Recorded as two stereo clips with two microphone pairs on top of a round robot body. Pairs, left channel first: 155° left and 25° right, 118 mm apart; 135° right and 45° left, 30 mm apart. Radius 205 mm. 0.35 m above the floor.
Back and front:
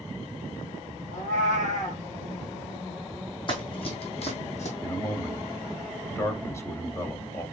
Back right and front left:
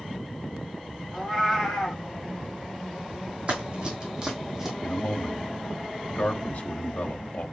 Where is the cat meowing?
140° left, 1.6 m.